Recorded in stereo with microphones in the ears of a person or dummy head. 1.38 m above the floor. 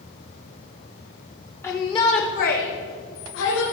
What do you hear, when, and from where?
1.6 s a shout: 10° left (ahead or behind), 0.6 m; by 3.6 s 60° left (ahead or behind), 1.6 m